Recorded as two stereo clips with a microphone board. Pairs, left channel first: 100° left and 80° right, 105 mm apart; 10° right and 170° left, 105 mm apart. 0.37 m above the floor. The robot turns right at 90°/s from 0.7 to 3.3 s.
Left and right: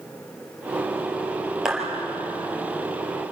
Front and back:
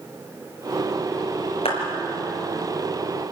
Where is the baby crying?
No baby crying in this recording.